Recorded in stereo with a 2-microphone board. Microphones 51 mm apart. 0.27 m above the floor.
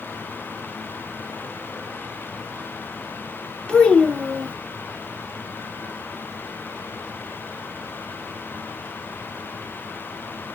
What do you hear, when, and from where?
3.7 s a child speaking: 15° left (ahead or behind), 0.6 m